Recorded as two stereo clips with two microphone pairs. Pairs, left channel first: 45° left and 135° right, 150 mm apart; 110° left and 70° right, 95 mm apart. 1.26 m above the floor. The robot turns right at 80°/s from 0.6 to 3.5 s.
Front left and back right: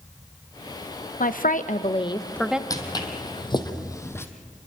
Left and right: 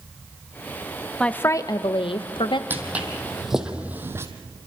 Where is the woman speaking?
30° left, 0.7 m; by 2.6 s 145° left, 0.7 m.